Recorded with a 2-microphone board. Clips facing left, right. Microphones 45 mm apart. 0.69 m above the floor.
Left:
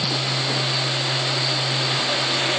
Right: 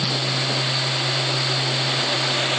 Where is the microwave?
I don't hear a microwave.